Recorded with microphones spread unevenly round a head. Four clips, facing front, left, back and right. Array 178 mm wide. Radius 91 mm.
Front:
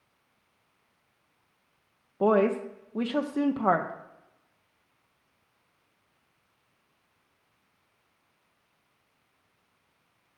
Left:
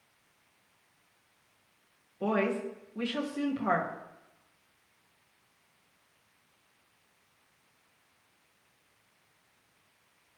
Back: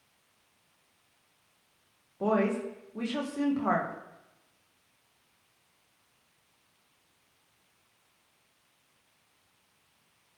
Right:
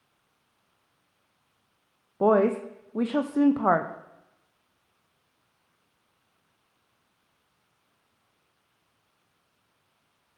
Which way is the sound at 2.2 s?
65° right.